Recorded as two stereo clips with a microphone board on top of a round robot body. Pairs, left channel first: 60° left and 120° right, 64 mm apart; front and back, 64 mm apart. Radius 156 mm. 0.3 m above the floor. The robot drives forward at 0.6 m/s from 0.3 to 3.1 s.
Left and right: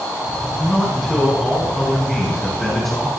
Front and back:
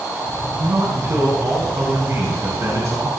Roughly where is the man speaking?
Behind left.